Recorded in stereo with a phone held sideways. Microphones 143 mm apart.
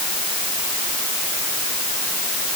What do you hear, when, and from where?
Only background noise.